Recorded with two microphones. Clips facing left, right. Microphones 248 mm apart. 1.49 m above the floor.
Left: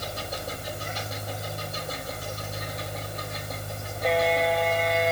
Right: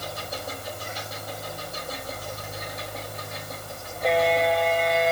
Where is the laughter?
No laughter in this recording.